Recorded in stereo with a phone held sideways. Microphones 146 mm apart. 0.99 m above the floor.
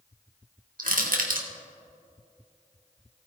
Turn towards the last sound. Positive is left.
turn(degrees=-75)  # may be behind; listen again after turning